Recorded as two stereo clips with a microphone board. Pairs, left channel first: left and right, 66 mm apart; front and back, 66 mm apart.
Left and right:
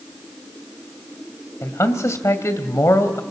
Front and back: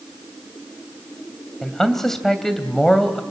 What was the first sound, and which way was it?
A man speaking, 80° left.